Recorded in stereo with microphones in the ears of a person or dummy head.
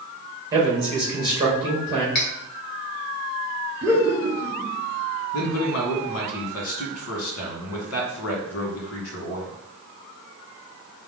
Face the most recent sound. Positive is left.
turn(degrees=75)  # may be behind; listen again after turning